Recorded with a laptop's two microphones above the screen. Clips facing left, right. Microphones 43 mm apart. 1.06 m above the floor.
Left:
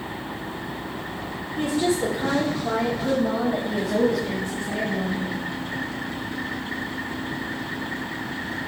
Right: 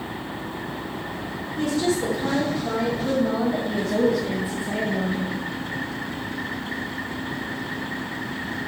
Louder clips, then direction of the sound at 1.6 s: Even; 30° left (ahead or behind).